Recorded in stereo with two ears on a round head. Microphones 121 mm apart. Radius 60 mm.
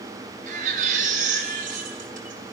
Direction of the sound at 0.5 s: 60° right (ahead or behind).